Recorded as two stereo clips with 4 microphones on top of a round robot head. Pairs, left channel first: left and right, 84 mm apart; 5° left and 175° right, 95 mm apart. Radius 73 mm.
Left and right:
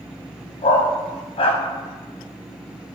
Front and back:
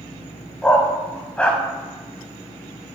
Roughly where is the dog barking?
Left.